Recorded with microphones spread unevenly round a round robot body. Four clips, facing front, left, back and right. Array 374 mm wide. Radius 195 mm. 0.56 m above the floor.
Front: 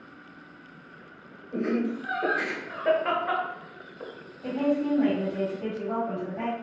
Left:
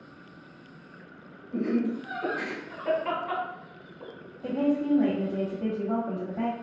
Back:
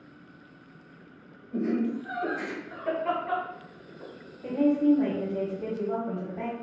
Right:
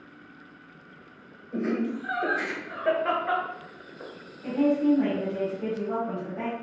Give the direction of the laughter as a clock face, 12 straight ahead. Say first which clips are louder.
Left 1 dB, even; 1 o'clock.